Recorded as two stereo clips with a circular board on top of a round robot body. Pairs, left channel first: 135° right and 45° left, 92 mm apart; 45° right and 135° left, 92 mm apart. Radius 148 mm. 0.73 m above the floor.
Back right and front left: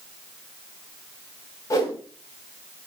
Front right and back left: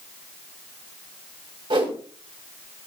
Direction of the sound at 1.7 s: 170° left.